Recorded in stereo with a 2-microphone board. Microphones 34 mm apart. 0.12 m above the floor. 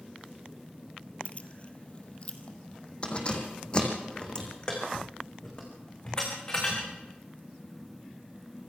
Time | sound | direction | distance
1.2 | keys jangling | 40° left (ahead or behind) | 1.6 m